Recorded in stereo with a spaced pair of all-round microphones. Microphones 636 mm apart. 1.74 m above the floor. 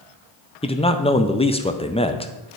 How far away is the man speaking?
About 0.6 m.